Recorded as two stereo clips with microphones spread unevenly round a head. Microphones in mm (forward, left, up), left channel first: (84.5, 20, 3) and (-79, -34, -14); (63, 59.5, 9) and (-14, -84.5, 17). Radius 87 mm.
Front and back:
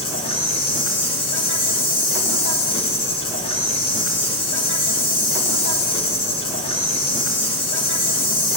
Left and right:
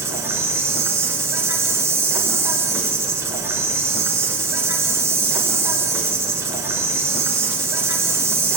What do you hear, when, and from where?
0.0 s an insect: 45° right, 6.5 m